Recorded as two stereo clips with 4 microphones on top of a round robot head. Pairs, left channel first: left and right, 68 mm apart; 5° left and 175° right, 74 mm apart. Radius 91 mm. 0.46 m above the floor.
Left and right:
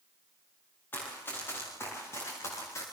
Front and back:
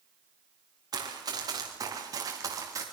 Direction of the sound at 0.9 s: 155° left.